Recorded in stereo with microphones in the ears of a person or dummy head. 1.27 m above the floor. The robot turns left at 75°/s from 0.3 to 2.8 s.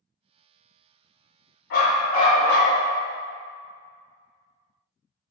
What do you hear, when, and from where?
1.7 s a dog barking: 70° left, 1.4 m; by 2.8 s 10° right, 1.4 m